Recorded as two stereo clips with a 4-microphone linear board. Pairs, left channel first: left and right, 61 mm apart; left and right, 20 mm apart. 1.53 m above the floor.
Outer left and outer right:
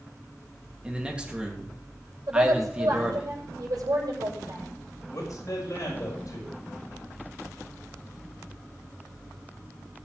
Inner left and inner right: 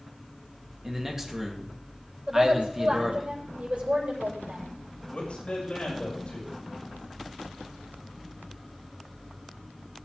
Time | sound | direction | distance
0.8 | a man speaking | 15° right (ahead or behind) | 2.5 m
2.3 | a woman speaking | 85° right | 7.5 m
5.1 | a man speaking | 65° left (ahead or behind) | 5.5 m